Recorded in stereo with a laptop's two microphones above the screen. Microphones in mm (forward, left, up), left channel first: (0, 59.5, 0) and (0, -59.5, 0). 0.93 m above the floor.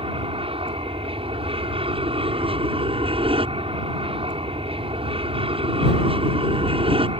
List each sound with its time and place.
0.0 s an aircraft: 50° right (ahead or behind)